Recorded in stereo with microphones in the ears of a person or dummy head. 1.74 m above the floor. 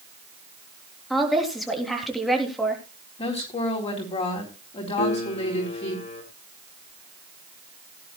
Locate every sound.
1.1 s a woman speaking: centre (ahead or behind), 3.5 m
3.2 s a woman speaking: 35° left (ahead or behind), 4 m
5.0 s a piano: 30° left (ahead or behind), 1.6 m